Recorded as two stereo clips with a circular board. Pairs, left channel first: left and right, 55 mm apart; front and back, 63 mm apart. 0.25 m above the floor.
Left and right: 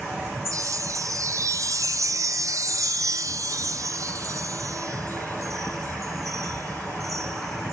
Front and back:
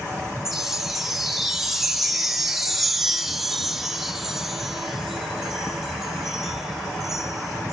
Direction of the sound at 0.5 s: 95° right.